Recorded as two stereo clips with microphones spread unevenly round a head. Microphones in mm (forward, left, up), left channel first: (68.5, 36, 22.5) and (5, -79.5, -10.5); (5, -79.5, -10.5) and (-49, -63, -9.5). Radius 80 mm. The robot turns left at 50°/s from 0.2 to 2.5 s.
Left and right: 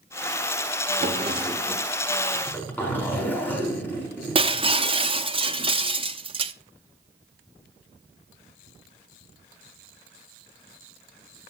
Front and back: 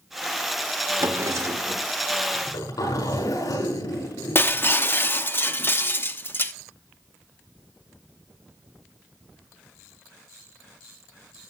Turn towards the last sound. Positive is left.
turn(degrees=-65)